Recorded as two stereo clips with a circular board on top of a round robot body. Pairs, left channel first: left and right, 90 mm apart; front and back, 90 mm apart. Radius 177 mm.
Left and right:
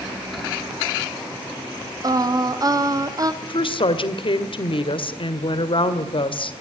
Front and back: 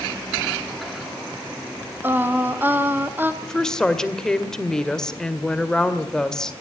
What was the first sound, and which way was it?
Singing, 120° right.